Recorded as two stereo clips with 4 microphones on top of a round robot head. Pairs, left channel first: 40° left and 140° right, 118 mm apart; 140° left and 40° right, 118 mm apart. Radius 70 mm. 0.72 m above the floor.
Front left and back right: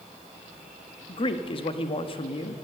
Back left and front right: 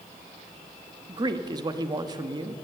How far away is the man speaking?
About 1.1 m.